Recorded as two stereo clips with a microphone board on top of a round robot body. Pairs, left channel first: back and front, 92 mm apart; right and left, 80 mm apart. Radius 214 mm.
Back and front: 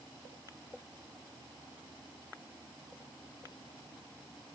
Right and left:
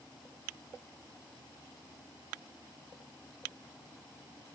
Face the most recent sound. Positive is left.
No sound to turn to.